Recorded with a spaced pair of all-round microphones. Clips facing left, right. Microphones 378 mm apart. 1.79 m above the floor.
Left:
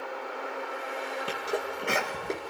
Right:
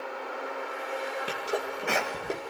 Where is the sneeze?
5° left (ahead or behind), 2 m.